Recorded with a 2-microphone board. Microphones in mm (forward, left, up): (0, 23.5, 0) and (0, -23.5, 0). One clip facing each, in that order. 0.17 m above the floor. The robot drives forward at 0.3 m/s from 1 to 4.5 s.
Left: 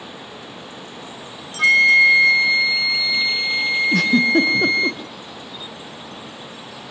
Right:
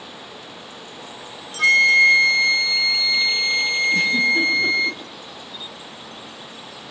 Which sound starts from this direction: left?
A giggle, at 3.9 s.